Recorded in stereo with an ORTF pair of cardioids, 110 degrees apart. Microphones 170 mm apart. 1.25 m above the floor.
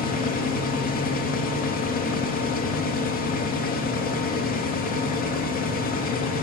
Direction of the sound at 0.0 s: 60° left.